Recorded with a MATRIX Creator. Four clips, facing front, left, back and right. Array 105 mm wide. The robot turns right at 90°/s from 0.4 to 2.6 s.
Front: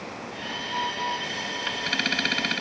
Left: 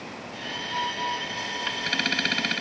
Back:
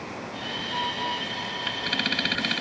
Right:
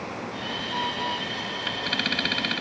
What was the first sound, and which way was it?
Only background noise.